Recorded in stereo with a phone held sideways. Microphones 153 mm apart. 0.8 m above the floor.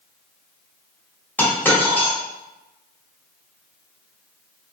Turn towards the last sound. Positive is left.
turn(degrees=15)  # may be behind; listen again after turning